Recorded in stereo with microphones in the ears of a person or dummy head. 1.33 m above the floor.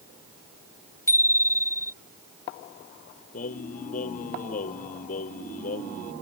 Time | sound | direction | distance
1.1 | a bicycle bell | 20° left (ahead or behind) | ?
3.3 | singing | 50° left (ahead or behind) | ?